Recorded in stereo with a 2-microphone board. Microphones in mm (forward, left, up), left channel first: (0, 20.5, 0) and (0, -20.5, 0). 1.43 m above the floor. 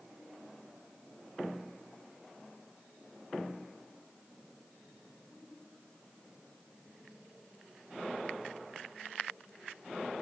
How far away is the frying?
No frying in this recording.